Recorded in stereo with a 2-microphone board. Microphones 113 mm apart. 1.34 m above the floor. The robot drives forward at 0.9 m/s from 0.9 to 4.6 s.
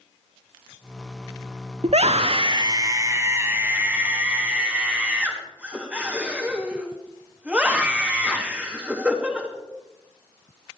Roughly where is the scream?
Right.